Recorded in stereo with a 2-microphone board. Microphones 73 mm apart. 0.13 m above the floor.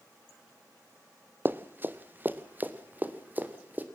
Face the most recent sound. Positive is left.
turn(degrees=-25)  # may be behind; listen again after turning